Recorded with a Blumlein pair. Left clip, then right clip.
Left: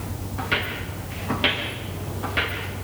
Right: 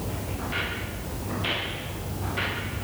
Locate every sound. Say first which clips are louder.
0.4 s footsteps: left 6 dB; 45° left, 8.5 m; by 2.6 s 30° left, 8 m